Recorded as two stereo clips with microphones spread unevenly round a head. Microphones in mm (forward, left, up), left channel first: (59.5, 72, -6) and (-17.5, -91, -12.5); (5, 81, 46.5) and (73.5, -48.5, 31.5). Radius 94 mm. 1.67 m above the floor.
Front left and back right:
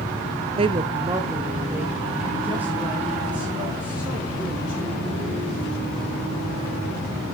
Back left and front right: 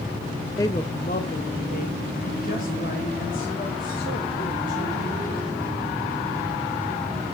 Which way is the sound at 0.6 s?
170° right.